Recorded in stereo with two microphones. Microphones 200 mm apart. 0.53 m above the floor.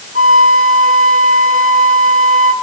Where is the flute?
40° right (ahead or behind), 1.4 m.